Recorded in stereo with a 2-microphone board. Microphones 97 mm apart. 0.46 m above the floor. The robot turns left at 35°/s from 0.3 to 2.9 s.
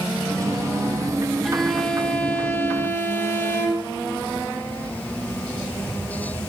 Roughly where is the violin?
Centre.